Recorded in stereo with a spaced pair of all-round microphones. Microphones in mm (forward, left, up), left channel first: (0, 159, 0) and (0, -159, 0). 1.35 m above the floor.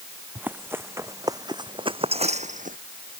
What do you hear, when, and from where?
0.3 s running footsteps: 5° right (ahead or behind); by 2.8 s 30° right (ahead or behind)